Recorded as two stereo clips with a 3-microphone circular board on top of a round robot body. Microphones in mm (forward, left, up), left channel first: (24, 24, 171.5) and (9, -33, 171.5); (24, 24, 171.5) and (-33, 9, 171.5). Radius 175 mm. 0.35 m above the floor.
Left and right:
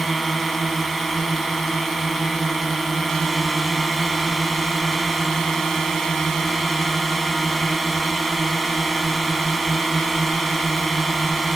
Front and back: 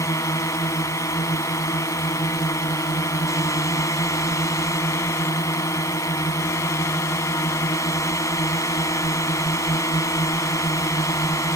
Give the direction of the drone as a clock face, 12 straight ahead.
12 o'clock.